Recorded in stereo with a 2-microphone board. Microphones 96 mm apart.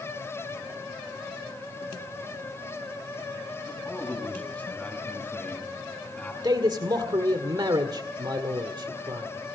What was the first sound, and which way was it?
A man speaking, 10° left (ahead or behind).